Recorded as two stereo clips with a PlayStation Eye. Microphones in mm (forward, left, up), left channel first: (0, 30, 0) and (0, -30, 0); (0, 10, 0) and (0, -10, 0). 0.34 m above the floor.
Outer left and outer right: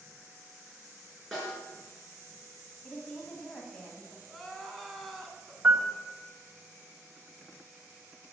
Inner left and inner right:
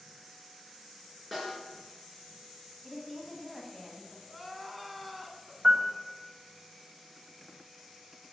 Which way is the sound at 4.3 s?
Centre (ahead or behind).